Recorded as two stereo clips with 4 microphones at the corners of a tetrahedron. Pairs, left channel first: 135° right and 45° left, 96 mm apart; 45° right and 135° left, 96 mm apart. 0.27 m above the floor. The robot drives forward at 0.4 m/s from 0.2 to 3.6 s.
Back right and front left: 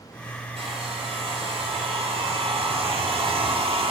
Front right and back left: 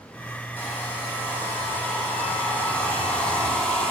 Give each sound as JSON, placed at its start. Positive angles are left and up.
{"t": 0.6, "sound": "a hair dryer", "azimuth_deg": 30, "distance_m": 5.0}